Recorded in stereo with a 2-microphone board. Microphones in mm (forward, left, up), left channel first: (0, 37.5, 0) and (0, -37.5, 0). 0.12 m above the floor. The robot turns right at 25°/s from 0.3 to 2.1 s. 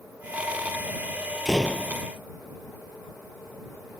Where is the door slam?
5° right (ahead or behind); by 2.0 s 5° left (ahead or behind).